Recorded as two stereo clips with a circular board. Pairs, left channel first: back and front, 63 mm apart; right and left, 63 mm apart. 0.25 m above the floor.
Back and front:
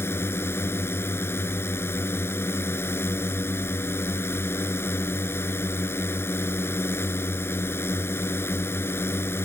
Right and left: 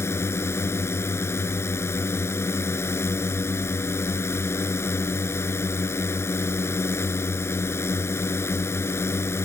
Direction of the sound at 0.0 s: 130° right.